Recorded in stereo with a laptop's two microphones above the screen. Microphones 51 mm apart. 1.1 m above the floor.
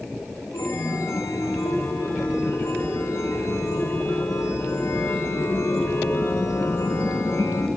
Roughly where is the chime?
Left.